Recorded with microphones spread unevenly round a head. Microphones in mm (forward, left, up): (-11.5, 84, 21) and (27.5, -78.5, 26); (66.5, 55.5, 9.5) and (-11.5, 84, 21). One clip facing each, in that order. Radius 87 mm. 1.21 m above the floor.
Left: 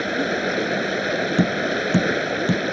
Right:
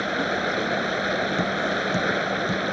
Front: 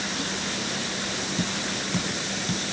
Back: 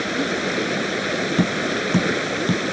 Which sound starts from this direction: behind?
Running water, at 0.0 s.